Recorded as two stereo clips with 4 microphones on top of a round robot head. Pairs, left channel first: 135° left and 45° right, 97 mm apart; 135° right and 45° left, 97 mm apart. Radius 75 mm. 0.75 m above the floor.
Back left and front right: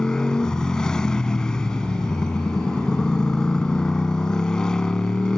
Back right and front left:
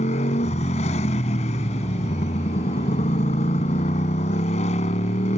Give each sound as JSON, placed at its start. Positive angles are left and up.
{"t": 0.0, "sound": "a motorcycle", "azimuth_deg": -140}